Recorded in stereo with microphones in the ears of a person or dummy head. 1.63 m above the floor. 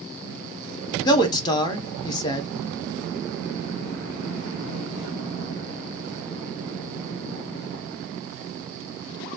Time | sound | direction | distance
1.1 | a man speaking | 20° left (ahead or behind) | 0.7 m